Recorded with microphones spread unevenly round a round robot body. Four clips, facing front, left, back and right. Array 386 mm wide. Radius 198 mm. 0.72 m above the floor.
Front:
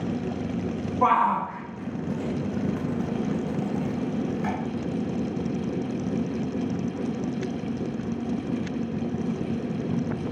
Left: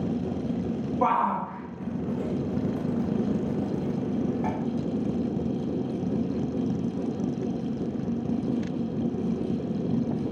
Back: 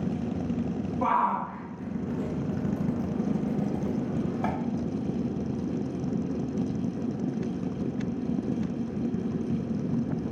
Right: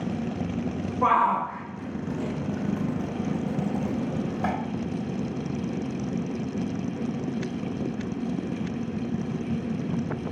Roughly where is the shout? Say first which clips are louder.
Right 3 dB, front 5 dB; ahead left.